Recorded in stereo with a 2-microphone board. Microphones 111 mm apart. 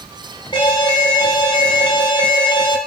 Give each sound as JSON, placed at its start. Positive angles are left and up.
{"t": 0.5, "sound": "an alarm", "side_deg": 50, "distance_m": 3.5}